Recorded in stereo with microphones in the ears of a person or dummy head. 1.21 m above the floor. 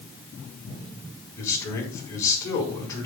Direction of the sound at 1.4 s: 20° left (ahead or behind).